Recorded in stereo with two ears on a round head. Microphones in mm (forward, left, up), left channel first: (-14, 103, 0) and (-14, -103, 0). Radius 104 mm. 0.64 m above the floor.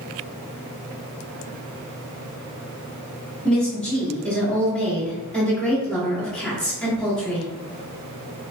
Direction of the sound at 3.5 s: 5° left (ahead or behind).